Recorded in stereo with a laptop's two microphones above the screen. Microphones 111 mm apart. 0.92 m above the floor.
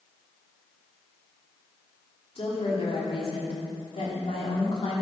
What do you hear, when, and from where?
2.4 s a woman speaking: 55° left (ahead or behind), 3 m